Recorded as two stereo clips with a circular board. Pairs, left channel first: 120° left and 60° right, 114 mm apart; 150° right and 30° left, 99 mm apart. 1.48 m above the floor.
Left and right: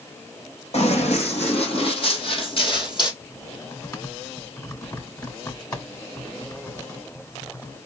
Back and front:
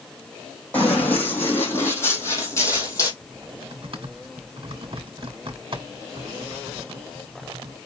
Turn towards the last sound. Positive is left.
turn(degrees=60)